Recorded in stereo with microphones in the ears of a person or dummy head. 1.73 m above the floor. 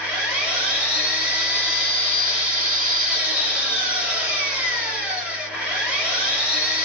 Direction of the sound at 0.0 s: 5° right (ahead or behind).